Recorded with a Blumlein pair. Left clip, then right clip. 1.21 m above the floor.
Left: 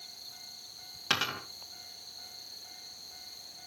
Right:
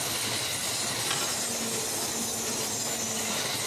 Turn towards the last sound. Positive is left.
turn(degrees=10)